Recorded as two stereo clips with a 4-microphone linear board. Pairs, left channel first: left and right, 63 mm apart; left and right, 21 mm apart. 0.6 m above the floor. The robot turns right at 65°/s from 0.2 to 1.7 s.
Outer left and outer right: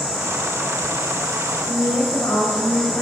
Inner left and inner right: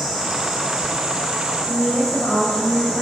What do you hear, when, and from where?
1.7 s a woman speaking: 35° left (ahead or behind), 2.5 m